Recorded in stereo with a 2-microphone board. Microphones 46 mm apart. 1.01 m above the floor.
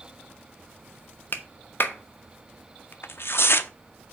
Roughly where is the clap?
Left.